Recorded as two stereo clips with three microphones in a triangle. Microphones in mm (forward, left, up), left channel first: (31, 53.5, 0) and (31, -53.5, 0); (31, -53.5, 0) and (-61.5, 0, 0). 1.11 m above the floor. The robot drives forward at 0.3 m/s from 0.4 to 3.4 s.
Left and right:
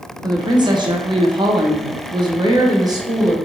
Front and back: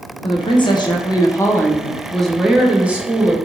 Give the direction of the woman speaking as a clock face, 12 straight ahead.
2 o'clock.